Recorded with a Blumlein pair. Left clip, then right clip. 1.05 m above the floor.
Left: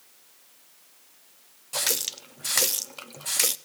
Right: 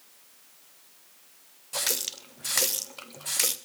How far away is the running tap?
About 0.8 m.